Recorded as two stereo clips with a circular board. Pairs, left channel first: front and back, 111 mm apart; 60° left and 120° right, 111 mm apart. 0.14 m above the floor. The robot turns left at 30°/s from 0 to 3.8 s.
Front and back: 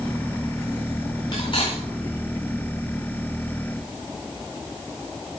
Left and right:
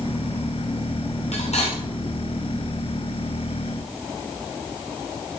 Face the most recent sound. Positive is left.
turn(degrees=-30)